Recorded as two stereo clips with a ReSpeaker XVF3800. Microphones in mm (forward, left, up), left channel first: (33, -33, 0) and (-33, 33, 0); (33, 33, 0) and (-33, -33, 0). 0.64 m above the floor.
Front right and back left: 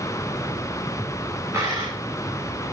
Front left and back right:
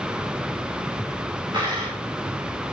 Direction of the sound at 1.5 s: 170° right.